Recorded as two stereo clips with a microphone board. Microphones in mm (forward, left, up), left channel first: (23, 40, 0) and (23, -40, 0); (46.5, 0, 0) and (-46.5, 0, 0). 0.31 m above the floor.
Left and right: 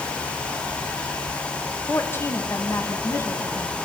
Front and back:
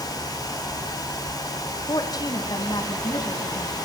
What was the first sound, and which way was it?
A woman speaking, 35° left.